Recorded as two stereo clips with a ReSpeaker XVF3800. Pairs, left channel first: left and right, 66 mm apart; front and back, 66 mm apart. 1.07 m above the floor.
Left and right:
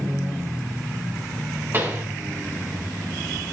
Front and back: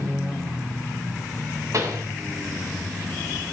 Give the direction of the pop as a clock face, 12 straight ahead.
5 o'clock.